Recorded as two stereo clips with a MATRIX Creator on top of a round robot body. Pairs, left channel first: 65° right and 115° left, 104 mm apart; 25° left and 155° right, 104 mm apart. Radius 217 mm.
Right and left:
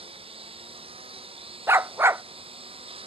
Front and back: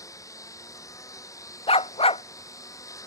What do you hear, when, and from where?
0.0 s a lawn mower: 80° left
1.7 s a dog barking: 45° left